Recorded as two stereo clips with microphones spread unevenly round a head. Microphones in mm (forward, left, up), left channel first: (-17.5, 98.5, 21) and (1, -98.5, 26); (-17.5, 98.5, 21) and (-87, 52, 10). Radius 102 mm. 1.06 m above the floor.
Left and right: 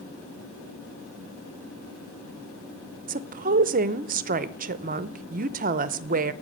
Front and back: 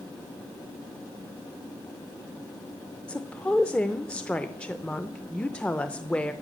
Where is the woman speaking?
50° right, 0.6 m.